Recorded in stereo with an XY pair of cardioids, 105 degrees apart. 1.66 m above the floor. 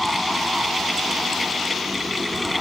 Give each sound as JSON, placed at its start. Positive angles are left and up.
{"t": 0.0, "sound": "a fan", "azimuth_deg": 10}